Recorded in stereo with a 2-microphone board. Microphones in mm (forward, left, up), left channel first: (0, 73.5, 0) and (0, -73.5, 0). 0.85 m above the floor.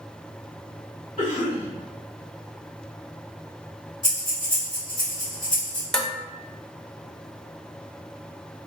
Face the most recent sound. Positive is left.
turn(degrees=5)  # may be behind; listen again after turning